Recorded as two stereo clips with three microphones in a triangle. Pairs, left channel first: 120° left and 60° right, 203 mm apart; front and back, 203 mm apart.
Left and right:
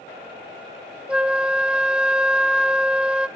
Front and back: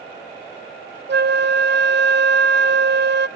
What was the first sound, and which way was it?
A flute, 145° right.